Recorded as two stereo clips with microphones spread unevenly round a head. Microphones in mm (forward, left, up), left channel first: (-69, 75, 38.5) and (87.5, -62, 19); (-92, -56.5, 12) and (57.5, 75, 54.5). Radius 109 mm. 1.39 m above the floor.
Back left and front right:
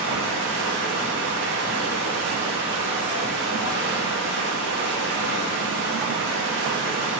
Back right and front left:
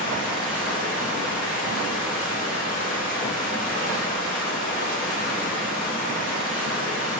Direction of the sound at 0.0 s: 85° right.